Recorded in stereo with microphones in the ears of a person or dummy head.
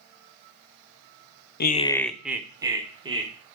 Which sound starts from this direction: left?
Laughter, at 1.6 s.